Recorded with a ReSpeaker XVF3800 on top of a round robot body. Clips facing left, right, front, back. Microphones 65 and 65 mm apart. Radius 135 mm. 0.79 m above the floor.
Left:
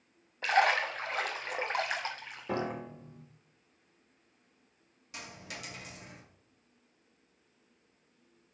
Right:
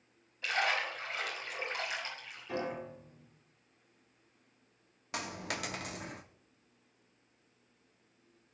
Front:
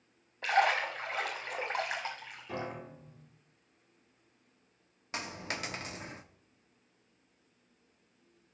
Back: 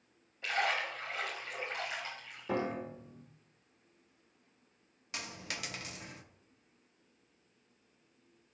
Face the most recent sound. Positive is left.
turn(degrees=-60)